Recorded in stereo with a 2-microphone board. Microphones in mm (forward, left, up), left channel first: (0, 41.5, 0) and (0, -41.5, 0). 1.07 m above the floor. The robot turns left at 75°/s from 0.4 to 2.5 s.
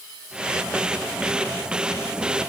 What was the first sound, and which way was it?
Only background noise.